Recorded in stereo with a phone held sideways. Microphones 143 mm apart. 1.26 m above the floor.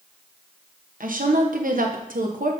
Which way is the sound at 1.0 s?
70° right (ahead or behind).